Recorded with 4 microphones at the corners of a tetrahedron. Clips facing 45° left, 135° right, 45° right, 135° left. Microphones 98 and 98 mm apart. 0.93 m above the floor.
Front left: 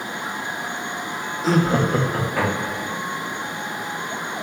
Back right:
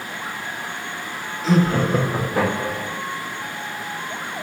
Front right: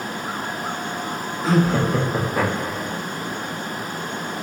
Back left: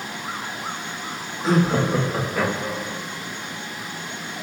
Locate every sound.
1.4 s laughter: 85° left, 1.0 m; by 3.0 s 100° right, 1.5 m